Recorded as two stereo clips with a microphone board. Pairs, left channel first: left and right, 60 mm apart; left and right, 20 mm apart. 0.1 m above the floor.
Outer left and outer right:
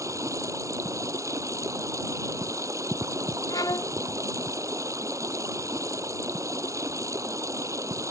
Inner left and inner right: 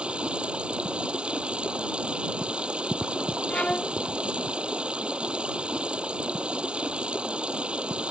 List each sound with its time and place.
0.0 s running water: 60° right (ahead or behind)
3.5 s a violin: 80° left